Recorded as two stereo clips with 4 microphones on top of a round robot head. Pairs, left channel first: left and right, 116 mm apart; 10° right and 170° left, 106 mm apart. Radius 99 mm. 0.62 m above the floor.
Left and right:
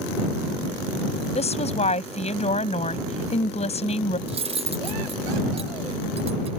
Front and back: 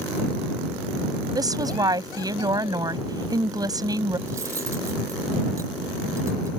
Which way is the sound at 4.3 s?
120° right.